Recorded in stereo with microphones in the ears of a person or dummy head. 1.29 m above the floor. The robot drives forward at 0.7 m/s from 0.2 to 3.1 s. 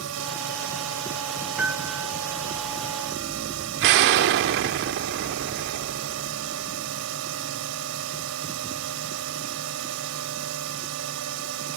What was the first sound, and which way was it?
A drone, 80° right.